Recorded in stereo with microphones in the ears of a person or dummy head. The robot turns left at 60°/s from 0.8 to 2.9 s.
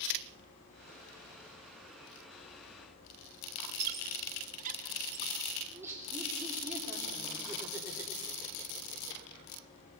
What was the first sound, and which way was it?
A squeak, 45° right (ahead or behind).